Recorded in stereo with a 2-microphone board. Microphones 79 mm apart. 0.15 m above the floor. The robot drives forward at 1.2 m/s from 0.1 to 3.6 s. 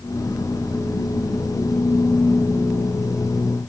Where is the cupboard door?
No cupboard door in this recording.